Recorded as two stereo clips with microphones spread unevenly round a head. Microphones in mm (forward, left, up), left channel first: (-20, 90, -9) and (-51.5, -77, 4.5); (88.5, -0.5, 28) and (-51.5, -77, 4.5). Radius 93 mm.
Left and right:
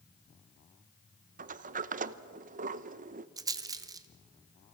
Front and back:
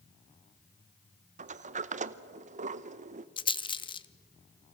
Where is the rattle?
30° right, 0.7 m.